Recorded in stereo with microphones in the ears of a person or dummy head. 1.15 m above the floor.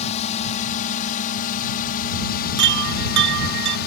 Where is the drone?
35° left (ahead or behind); by 3.9 s 55° left (ahead or behind).